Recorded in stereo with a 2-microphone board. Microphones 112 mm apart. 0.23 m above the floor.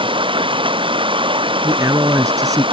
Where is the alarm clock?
No alarm clock in this recording.